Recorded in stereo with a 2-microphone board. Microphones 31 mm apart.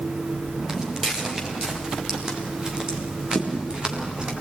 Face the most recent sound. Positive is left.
turn(degrees=-40)  # may be behind; listen again after turning